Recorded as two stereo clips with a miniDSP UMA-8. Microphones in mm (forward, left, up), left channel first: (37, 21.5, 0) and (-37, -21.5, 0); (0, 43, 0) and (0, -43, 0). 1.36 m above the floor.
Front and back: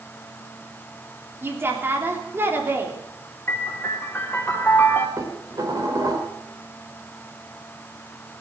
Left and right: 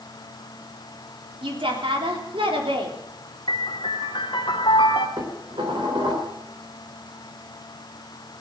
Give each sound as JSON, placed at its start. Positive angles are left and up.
{"t": 1.4, "sound": "a woman speaking", "azimuth_deg": -85, "distance_m": 3.5}
{"t": 3.5, "sound": "a piano", "azimuth_deg": 90, "distance_m": 3.0}
{"t": 5.2, "sound": "dishes clattering", "azimuth_deg": -105, "distance_m": 3.5}